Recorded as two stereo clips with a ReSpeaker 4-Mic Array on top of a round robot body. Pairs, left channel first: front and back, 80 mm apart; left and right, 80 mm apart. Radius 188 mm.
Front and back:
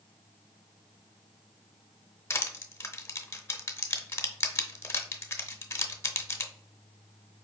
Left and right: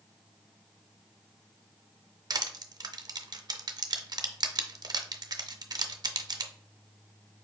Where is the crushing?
55° right, 0.6 m.